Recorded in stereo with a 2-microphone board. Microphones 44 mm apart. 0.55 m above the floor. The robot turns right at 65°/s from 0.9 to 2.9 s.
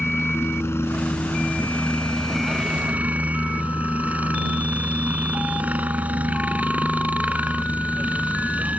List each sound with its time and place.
0.0 s a helicopter: 90° left; by 8.8 s 140° right